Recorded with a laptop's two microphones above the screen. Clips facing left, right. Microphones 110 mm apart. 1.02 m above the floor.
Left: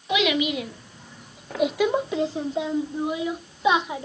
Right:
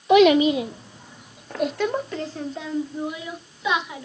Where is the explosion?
No explosion in this recording.